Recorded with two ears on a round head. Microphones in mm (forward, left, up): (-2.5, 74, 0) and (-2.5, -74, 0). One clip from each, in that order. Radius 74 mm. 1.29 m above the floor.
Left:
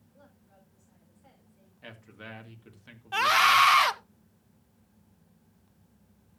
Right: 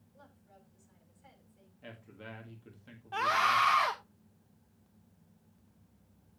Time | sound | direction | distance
0.1 | a woman speaking | 15° right (ahead or behind) | 6.5 m
1.8 | a man speaking | 40° left (ahead or behind) | 1.8 m
3.1 | a scream | 55° left (ahead or behind) | 1.0 m